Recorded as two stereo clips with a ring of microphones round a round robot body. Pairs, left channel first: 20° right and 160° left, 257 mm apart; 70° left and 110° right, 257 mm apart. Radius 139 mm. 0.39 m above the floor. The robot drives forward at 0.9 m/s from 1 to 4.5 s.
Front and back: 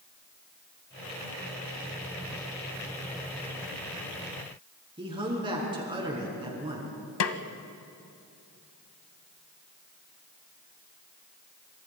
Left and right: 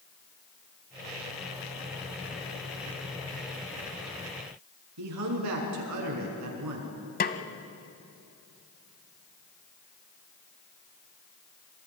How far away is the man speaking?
About 5 m.